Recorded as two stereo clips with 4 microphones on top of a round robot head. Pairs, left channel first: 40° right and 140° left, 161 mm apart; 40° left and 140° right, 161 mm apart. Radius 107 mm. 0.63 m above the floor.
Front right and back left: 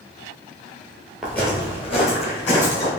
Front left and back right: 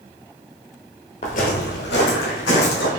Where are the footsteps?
55° left, 0.6 m; by 2.9 s 10° left, 2.0 m.